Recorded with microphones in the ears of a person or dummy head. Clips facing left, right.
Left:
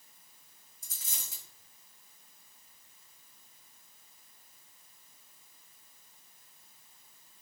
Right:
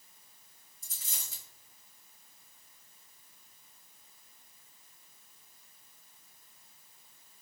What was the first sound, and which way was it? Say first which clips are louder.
A dropped coin: even; 50° left (ahead or behind).